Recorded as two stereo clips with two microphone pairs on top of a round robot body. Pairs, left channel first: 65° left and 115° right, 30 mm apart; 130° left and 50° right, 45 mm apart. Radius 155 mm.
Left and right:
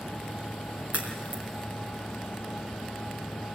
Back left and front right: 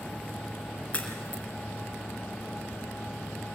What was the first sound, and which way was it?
A crack, 160° right.